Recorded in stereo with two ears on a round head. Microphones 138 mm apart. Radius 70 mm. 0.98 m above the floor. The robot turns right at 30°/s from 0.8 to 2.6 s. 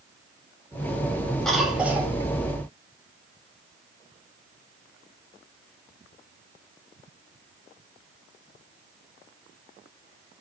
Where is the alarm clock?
No alarm clock in this recording.